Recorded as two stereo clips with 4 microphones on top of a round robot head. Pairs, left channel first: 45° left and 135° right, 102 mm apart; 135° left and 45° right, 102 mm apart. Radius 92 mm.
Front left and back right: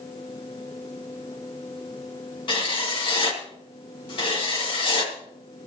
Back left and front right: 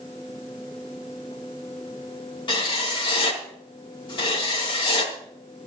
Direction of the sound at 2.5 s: 90° left.